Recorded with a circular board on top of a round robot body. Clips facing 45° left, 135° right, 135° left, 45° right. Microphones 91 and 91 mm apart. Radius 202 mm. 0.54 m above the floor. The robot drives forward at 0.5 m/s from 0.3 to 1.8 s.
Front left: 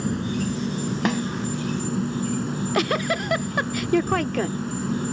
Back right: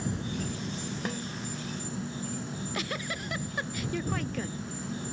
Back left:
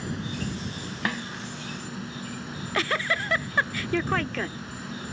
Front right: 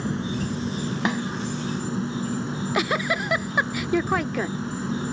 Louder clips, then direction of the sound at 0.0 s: Front left 8 dB, front right 5 dB; 10° left.